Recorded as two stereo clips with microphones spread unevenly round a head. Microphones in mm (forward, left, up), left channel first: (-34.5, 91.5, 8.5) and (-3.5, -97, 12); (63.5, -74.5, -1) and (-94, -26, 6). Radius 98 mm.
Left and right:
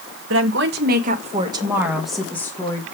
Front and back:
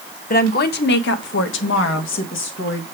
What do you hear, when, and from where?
0.3 s a woman speaking: 55° right, 1.6 m; by 2.9 s 25° left, 2 m